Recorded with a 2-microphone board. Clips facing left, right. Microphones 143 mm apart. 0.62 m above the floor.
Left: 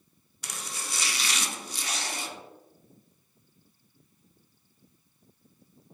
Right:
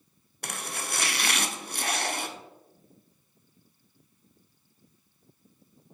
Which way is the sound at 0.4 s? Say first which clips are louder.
Right 4 dB; 60° right (ahead or behind).